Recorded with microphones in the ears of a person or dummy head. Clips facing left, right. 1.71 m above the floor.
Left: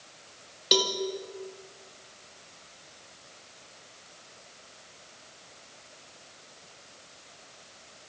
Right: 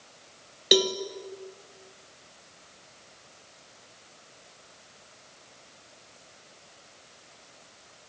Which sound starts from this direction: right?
A cowbell, at 0.7 s.